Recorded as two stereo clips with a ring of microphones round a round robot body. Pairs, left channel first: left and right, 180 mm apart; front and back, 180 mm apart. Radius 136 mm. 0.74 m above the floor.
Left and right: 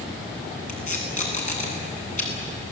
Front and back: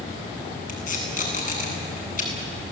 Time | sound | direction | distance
0.7 | tape being pulled | 45° left | 9 m